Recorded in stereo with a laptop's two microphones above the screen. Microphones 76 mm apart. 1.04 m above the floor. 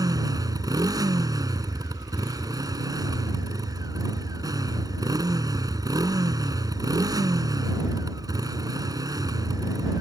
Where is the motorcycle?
55° right (ahead or behind).